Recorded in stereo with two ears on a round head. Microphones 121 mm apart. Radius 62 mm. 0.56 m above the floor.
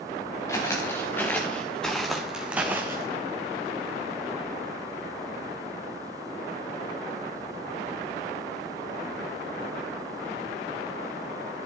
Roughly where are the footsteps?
Left.